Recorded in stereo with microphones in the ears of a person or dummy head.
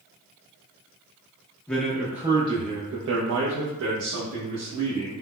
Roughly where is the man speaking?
Centre.